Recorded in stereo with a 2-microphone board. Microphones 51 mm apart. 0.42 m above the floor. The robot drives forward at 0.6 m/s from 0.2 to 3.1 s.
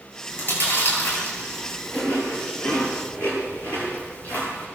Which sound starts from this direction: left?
Chewing, at 0.3 s.